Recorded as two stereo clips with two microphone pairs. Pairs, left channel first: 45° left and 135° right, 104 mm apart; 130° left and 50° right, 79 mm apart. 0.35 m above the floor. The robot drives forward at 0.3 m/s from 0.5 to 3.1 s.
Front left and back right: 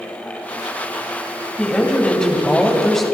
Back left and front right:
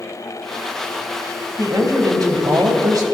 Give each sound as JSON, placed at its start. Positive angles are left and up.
{"t": 1.6, "sound": "a woman speaking", "azimuth_deg": -35, "distance_m": 2.5}